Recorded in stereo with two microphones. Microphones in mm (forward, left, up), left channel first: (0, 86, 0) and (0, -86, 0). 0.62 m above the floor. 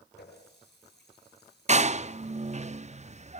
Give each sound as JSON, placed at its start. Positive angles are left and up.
{"t": 0.2, "sound": "a running tap", "side_deg": 75, "distance_m": 7.5}
{"t": 1.7, "sound": "a door slam", "side_deg": -40, "distance_m": 0.5}